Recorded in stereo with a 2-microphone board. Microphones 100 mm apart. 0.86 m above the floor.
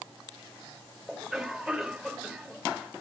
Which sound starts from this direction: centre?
A cough, at 1.1 s.